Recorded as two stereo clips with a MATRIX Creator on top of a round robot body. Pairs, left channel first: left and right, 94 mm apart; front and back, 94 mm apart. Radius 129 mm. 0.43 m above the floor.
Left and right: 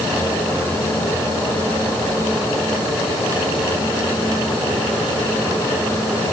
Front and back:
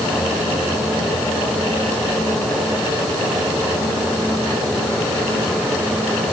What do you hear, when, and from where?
Only background noise.